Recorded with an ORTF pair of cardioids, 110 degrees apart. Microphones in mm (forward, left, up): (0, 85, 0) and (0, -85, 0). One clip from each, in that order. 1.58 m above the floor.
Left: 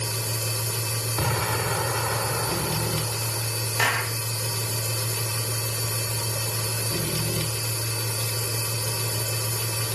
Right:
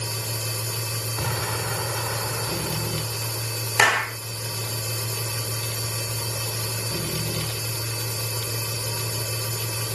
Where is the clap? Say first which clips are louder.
Right 5 dB; 45° right.